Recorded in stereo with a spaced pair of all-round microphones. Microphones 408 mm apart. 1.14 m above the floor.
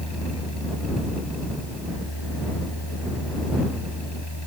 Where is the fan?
70° left (ahead or behind).